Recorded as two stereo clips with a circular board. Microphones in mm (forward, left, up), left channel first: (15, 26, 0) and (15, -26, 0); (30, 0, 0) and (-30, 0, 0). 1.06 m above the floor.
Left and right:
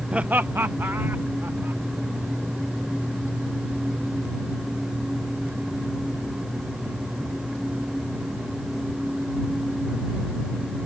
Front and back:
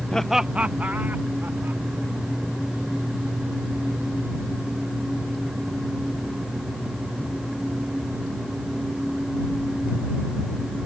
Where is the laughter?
50° right; by 1.8 s 130° right.